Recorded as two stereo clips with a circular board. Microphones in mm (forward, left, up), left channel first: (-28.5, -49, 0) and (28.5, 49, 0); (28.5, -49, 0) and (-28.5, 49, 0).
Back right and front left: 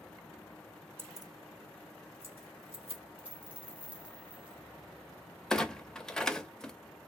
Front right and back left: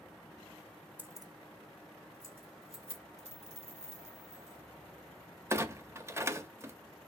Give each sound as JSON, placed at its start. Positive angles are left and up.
{"t": 1.0, "sound": "keys jangling", "azimuth_deg": 80, "distance_m": 0.5}
{"t": 3.2, "sound": "a dropped coin", "azimuth_deg": 140, "distance_m": 1.2}
{"t": 5.5, "sound": "a clunk", "azimuth_deg": 160, "distance_m": 0.5}